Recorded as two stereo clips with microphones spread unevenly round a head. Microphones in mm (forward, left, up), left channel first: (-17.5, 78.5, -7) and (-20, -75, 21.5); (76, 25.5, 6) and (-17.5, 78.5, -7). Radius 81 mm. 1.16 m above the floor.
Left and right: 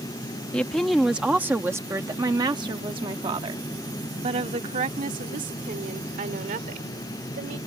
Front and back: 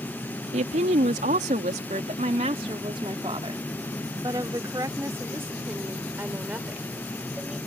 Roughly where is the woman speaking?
Behind.